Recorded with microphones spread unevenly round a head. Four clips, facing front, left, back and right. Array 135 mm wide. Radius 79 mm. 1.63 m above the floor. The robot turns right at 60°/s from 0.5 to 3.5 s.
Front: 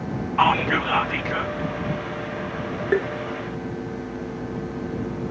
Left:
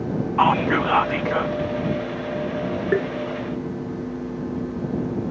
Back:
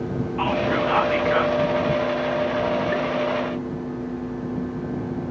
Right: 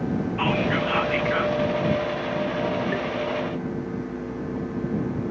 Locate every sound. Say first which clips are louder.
0.4 s whispering: left 7 dB, front 2 dB; 75° left; by 1.6 s 140° left
2.9 s tapping: left 6 dB, front 3 dB; 50° left; by 3.1 s 60° left